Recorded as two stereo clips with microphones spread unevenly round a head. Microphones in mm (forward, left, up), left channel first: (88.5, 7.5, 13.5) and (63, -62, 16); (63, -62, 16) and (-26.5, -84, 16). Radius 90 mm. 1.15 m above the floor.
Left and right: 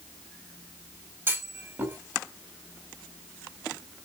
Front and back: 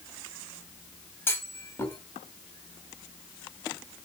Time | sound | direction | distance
1.3 | a clunk | 50° right | 4.5 m